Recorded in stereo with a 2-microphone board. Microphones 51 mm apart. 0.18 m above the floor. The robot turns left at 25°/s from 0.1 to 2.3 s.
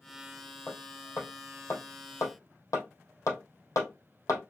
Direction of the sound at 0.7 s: 40° left (ahead or behind).